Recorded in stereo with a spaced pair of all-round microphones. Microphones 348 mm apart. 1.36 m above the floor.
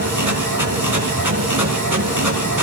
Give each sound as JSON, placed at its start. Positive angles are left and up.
{"t": 0.0, "sound": "a machine running", "side_deg": -65, "distance_m": 4.0}